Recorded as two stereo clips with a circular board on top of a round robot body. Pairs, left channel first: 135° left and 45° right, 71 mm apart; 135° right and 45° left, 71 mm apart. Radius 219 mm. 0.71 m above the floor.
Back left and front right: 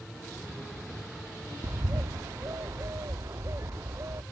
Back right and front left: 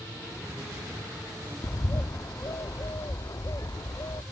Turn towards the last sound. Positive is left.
turn(degrees=-95)